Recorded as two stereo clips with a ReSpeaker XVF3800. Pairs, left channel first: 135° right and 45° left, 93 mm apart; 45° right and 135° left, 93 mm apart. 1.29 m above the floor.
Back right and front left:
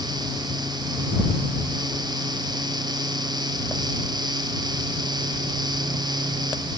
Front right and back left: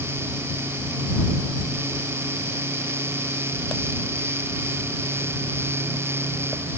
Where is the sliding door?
I don't hear a sliding door.